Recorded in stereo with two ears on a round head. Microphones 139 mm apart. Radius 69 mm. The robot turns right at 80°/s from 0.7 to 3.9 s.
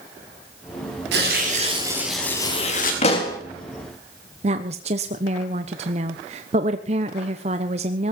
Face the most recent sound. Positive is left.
turn(degrees=-40)  # may be behind; listen again after turning